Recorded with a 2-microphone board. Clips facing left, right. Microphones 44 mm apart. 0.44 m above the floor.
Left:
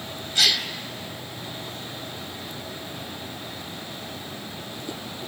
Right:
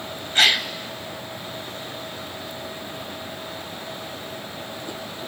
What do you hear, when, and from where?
0.3 s a gasp: 45° right (ahead or behind), 1.0 m